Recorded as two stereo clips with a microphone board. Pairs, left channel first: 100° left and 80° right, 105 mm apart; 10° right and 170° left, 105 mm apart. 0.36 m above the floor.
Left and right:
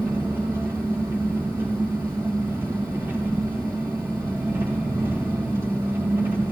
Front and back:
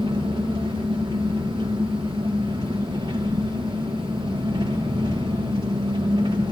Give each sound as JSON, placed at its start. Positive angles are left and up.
{"t": 0.0, "sound": "an engine running", "azimuth_deg": -145, "distance_m": 5.5}